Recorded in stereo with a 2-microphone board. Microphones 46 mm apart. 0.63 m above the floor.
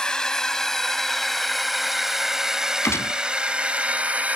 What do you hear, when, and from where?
0.0 s a drone: 15° left (ahead or behind); by 4.4 s 35° right (ahead or behind)
2.8 s a gunshot: 85° left